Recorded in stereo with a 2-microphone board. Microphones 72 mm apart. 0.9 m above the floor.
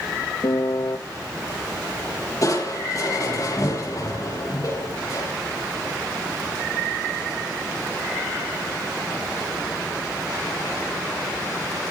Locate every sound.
0.4 s a piano: 60° left (ahead or behind), 0.7 m
2.4 s crushing: 50° left (ahead or behind), 8 m